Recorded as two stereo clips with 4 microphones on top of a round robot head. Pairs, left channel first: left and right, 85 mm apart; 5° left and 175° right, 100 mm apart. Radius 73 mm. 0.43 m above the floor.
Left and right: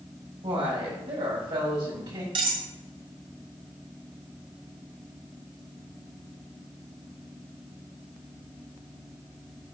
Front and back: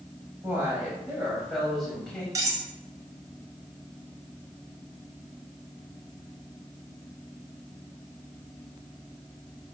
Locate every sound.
0.4 s a woman speaking: 105° right, 3.5 m; by 2.2 s 80° right, 3.5 m
2.4 s cutlery clinking: 115° right, 1.3 m